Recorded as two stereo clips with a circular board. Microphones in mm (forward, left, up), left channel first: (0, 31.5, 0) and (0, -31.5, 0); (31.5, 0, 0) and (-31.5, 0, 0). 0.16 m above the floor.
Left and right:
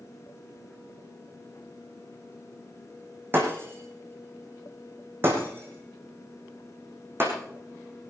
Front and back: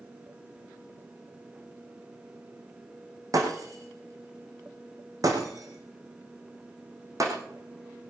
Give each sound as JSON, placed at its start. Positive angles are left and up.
{"t": 3.3, "sound": "breaking glass", "azimuth_deg": -145, "distance_m": 4.5}